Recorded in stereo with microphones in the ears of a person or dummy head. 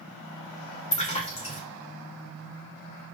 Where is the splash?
25° left (ahead or behind), 0.7 m.